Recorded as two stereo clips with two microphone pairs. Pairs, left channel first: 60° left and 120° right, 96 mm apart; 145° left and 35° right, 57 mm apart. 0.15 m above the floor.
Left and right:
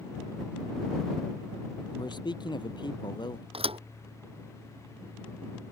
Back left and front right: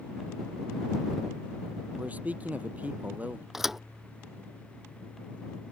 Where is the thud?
120° right.